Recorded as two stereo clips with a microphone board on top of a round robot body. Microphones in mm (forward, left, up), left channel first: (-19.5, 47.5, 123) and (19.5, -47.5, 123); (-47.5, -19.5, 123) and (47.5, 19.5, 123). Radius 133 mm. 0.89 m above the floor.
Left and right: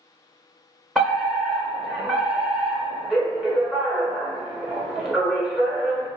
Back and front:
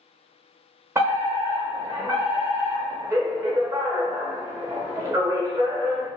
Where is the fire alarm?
25° left, 1.3 m.